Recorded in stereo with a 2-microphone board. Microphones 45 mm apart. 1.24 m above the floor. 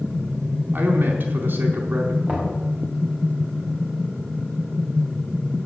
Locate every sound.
0.7 s a man speaking: 55° right (ahead or behind), 4 m
2.3 s knocking: 30° right (ahead or behind), 4.5 m